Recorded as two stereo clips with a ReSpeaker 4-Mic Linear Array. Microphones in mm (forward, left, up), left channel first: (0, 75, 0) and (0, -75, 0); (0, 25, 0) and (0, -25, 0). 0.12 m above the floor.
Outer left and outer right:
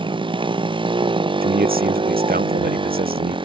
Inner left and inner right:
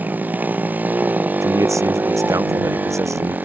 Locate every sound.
0.0 s a motorcycle: 35° right (ahead or behind)
1.4 s a man speaking: 75° right (ahead or behind)